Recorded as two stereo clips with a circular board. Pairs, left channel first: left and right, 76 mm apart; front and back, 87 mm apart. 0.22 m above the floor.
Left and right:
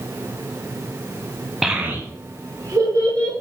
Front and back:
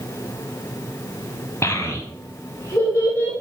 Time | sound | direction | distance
1.6 | a child speaking | 5° right | 0.7 m